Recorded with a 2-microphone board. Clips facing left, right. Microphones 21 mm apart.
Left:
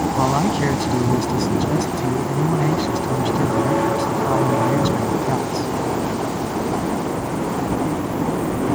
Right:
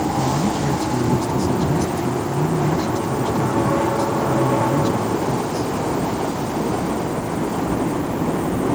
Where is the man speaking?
65° left (ahead or behind).